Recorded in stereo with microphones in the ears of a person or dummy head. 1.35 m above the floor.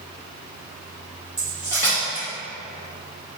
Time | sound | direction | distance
1.4 | cutlery clinking | 15° left (ahead or behind) | 0.9 m